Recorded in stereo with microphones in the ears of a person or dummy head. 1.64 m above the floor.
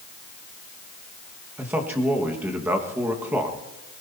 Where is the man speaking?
10° right (ahead or behind), 1.8 m.